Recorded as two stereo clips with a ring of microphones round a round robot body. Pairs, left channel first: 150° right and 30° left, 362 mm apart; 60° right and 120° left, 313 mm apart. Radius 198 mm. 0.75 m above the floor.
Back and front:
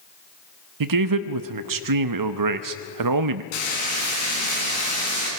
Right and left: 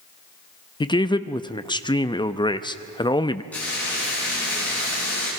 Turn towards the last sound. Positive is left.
turn(degrees=-145)